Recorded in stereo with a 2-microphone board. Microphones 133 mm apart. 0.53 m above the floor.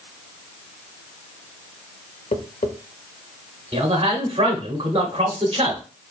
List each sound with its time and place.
2.3 s tapping: 80° left, 0.7 m
3.7 s a man speaking: 45° right (ahead or behind), 1.1 m